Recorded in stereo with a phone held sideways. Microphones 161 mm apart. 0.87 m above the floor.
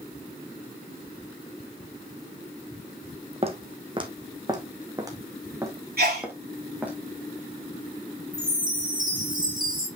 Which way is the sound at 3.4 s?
40° right (ahead or behind).